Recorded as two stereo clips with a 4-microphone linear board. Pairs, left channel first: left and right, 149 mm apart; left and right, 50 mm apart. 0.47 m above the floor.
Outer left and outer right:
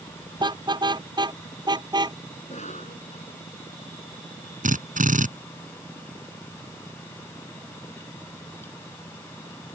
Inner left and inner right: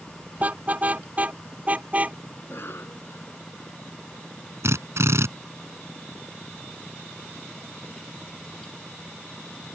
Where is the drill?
60° right (ahead or behind).